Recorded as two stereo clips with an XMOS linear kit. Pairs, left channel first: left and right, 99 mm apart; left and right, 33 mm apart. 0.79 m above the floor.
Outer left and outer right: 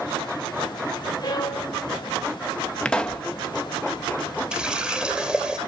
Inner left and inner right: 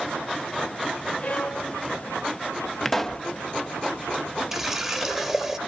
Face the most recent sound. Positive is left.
turn(degrees=-10)  # may be behind; listen again after turning